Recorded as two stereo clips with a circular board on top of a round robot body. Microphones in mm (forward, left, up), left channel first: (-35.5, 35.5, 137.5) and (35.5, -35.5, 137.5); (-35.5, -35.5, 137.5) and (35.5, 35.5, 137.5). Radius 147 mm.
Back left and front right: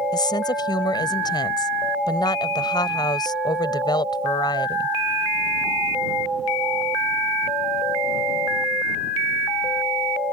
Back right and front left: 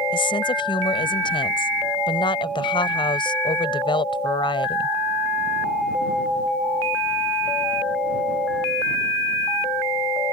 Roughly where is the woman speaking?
Behind.